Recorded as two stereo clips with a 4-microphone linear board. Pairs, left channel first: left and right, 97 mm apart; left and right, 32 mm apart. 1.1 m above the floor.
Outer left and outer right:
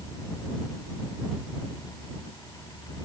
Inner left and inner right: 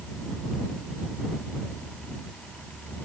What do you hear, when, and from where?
Only background noise.